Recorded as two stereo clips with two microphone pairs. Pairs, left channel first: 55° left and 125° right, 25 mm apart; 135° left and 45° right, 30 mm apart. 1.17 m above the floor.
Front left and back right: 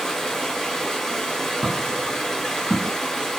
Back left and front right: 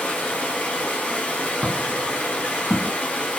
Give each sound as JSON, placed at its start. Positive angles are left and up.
{"t": 0.0, "sound": "running water", "azimuth_deg": 120, "distance_m": 1.0}
{"t": 1.6, "sound": "footsteps", "azimuth_deg": -65, "distance_m": 1.7}